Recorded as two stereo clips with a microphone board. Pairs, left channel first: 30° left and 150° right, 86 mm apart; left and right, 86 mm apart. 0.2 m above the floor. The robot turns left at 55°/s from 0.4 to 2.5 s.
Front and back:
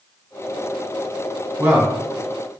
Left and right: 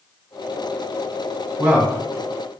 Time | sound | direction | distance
1.6 | a man speaking | 140° right | 1.2 m